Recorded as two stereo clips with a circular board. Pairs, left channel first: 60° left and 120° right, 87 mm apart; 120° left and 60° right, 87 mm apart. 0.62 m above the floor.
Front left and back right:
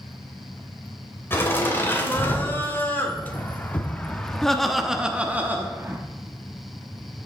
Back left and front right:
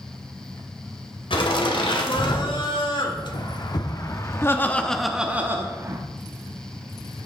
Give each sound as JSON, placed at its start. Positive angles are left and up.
{"t": 1.3, "sound": "laughter", "azimuth_deg": 125, "distance_m": 2.5}